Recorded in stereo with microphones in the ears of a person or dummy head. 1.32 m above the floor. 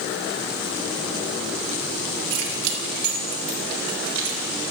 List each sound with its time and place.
2.3 s keys jangling: 55° right (ahead or behind), 1.8 m